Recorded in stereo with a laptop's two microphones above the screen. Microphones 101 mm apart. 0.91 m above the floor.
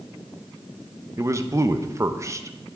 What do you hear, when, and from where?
1.2 s a man speaking: 30° right (ahead or behind), 0.6 m